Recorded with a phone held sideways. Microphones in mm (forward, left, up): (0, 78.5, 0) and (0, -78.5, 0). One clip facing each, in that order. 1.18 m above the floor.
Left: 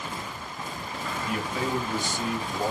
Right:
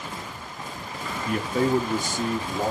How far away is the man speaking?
About 0.9 m.